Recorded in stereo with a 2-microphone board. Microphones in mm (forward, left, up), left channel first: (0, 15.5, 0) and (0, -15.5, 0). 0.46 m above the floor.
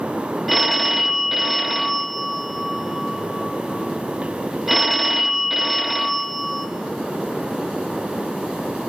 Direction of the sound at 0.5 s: 5° right (ahead or behind).